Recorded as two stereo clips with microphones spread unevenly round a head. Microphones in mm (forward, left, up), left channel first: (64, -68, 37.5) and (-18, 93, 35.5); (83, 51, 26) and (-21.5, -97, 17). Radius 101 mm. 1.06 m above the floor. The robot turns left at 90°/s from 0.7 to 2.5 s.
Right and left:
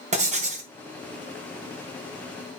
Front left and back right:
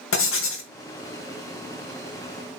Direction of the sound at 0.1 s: 65° left.